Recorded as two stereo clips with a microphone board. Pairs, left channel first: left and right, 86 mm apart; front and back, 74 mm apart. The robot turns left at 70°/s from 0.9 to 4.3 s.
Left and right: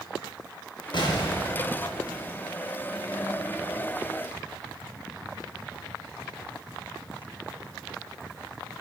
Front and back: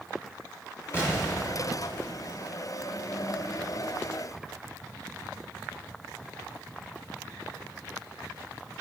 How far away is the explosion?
About 5 m.